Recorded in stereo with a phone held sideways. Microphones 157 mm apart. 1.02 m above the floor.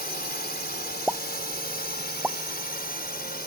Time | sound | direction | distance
0.0 | a drone | 75° left (ahead or behind) | ?
1.1 | a pop | 5° right (ahead or behind) | ?